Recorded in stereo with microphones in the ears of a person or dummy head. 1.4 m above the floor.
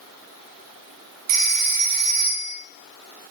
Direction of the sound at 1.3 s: 35° right (ahead or behind).